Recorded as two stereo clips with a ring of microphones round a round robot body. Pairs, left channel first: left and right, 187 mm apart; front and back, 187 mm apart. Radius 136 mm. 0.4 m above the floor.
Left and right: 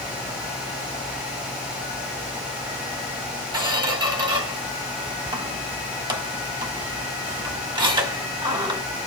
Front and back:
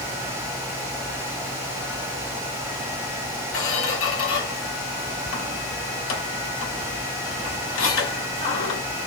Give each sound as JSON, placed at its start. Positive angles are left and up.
{"t": 3.5, "sound": "a squeak", "azimuth_deg": -25, "distance_m": 1.4}